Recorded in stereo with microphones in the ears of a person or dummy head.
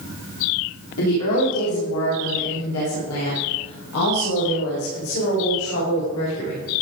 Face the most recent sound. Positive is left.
turn(degrees=85)